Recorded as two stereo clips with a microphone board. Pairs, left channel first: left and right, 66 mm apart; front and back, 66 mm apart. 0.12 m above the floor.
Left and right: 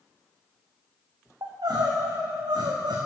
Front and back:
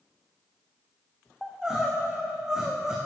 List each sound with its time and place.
1.4 s crying: 100° right, 2.5 m